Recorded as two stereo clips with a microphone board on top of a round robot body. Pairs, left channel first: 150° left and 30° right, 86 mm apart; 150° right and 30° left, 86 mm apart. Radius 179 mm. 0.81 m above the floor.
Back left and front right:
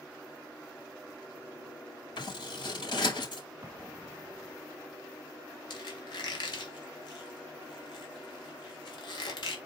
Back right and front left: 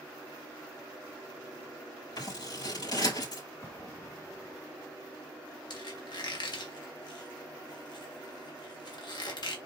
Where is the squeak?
Straight behind, 2 m.